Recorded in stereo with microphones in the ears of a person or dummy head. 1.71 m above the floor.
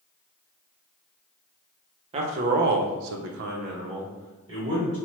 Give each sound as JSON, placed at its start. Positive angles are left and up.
{"t": 2.1, "sound": "a man speaking", "side_deg": -40, "distance_m": 0.6}